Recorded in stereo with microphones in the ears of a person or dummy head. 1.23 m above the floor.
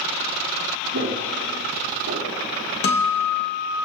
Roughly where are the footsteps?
Right.